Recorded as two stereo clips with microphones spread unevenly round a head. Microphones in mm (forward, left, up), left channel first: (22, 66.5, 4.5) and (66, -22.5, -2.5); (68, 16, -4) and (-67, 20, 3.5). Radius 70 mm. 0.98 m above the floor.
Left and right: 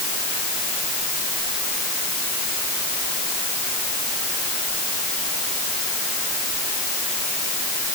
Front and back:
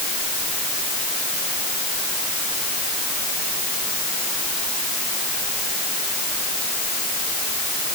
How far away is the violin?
No violin in this recording.